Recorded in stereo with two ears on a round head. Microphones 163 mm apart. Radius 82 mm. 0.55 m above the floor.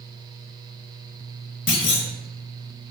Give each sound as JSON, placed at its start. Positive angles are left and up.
{"t": 1.7, "sound": "a clunk", "side_deg": 70, "distance_m": 0.6}